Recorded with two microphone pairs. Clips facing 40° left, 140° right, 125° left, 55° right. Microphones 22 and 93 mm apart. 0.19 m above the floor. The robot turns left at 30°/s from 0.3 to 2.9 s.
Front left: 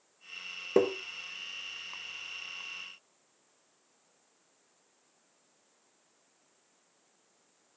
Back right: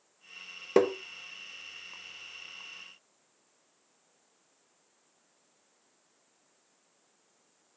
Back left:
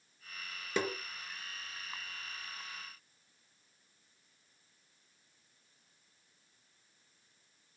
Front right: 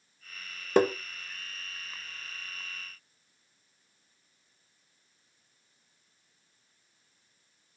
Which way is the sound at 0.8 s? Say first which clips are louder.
Back right 2 dB, front right 11 dB; 90° right.